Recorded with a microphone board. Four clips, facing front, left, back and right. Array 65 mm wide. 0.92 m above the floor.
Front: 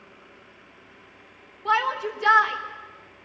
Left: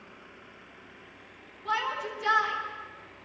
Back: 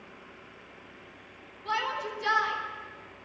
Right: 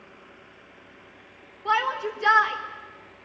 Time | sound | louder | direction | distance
1.6 | a shout | right 6 dB, front 8 dB | 20° right | 3.5 m